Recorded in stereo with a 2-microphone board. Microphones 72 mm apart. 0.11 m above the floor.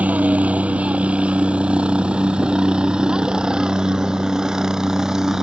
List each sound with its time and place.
0.0 s a helicopter: 20° right (ahead or behind); by 5.4 s 5° right (ahead or behind)